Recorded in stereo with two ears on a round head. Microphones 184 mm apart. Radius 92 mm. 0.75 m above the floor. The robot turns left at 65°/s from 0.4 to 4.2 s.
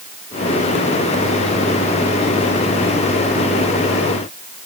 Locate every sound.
Only background noise.